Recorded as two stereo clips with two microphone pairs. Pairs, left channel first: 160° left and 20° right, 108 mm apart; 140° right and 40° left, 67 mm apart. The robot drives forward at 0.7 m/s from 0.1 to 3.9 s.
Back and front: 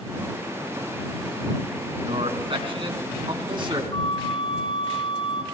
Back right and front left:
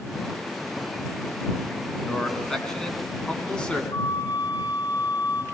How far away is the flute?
About 8 m.